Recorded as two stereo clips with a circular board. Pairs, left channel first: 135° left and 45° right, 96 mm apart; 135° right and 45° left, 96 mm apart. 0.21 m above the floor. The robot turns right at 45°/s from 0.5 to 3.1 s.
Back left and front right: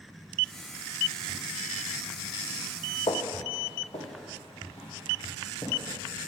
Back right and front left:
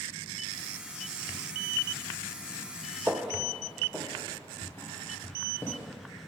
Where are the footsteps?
115° left, 0.6 m; by 5.7 s 155° left, 2.5 m.